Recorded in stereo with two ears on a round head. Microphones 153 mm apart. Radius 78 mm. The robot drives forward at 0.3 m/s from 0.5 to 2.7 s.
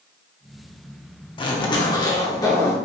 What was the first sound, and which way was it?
A zipper, 30° left (ahead or behind).